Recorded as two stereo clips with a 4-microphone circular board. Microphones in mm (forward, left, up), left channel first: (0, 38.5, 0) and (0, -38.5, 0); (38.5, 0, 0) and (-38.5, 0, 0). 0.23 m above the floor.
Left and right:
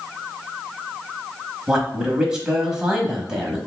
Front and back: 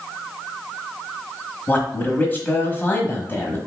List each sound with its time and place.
1.7 s a man speaking: 20° right, 1.1 m